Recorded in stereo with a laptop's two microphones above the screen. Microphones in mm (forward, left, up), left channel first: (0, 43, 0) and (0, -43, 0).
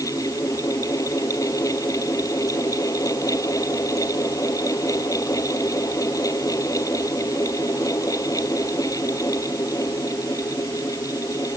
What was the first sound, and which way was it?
A fan, 45° left (ahead or behind).